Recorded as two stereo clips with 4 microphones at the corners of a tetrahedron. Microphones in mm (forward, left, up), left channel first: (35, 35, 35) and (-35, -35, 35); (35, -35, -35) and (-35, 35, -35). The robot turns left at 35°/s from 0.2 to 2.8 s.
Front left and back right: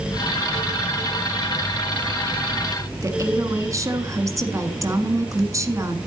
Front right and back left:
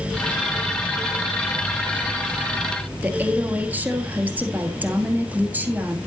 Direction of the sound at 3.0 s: 165° right.